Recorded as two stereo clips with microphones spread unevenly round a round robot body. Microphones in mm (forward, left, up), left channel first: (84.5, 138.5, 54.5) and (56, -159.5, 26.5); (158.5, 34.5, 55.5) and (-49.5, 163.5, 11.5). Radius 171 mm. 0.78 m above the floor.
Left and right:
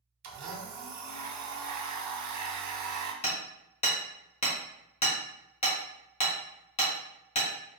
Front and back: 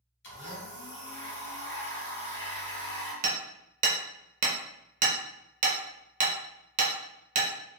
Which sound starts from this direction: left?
Hammering, at 3.2 s.